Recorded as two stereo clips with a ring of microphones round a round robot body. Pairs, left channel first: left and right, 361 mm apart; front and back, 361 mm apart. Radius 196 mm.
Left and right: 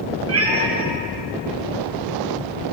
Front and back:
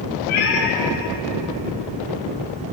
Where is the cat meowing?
40° right, 7 m; by 2.7 s 25° right, 8 m.